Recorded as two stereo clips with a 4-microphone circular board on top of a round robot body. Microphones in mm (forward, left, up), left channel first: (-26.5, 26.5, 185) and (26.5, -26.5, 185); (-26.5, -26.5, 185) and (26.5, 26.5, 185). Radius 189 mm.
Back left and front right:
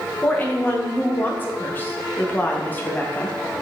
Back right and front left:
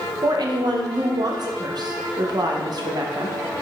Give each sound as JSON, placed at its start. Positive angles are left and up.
{"t": 0.2, "sound": "a woman speaking", "azimuth_deg": 70, "distance_m": 0.8}